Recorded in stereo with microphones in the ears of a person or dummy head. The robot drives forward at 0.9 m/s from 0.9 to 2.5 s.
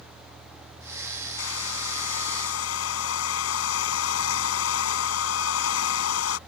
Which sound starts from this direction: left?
A hair dryer, at 1.4 s.